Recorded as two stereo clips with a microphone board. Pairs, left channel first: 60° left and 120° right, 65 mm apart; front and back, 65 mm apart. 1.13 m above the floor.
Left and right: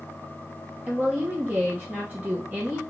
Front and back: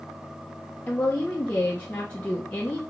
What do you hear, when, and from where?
0.9 s a woman speaking: 65° right, 0.9 m